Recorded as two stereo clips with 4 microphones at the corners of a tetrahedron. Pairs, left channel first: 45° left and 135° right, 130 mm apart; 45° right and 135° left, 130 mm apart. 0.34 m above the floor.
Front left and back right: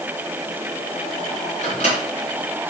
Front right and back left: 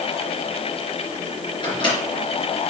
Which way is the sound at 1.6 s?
10° left.